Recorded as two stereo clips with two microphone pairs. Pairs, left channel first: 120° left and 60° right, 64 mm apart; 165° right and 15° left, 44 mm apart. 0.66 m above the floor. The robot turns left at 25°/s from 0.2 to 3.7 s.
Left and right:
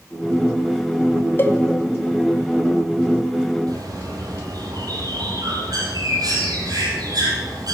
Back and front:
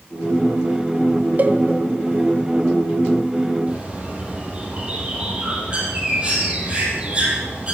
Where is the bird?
50° right, 3.5 m.